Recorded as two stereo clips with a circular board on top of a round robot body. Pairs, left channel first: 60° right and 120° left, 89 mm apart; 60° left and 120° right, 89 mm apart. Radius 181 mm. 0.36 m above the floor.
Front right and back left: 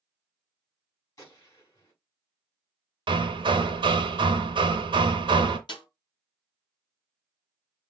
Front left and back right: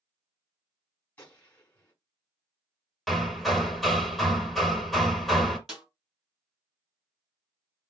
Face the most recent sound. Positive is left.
turn(degrees=-30)